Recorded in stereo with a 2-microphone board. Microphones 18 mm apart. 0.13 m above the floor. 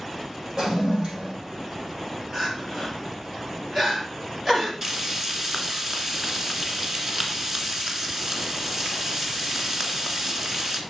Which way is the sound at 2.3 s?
25° right (ahead or behind).